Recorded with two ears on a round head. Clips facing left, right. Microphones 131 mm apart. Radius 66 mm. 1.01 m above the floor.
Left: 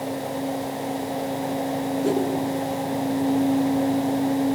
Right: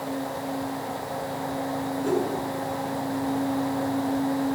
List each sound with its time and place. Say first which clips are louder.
2.0 s a whoosh: left 2 dB; 40° left (ahead or behind), 8 m